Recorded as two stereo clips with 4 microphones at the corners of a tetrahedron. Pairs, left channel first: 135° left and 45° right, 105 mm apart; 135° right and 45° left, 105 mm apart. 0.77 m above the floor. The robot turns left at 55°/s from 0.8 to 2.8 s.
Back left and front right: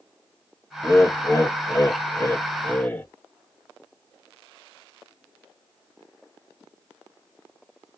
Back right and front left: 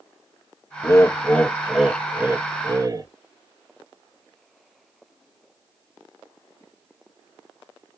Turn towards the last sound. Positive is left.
turn(degrees=75)